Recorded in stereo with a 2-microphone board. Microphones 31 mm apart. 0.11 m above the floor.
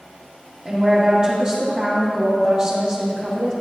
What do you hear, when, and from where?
0.7 s a woman speaking: 30° right (ahead or behind), 3.5 m